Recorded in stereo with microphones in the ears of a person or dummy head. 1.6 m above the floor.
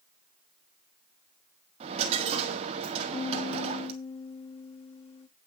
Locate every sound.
1.8 s a dropped coin: 40° right (ahead or behind), 1.8 m
3.1 s a piano: 35° left (ahead or behind), 2.5 m